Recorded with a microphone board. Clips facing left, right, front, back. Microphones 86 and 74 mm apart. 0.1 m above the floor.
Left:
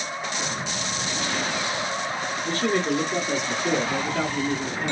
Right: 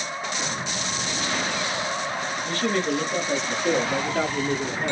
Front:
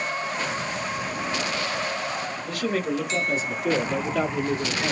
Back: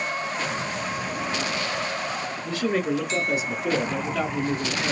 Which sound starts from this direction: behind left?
A man speaking, at 2.5 s.